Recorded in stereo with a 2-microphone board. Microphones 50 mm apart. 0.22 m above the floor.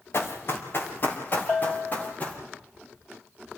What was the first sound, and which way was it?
Running footsteps, 50° left (ahead or behind).